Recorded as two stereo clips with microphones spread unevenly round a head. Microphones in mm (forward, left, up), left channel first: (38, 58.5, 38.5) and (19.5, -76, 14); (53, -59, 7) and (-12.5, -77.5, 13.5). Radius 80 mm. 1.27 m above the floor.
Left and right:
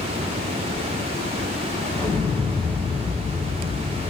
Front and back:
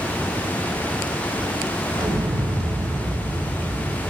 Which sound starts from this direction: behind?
An explosion, at 1.9 s.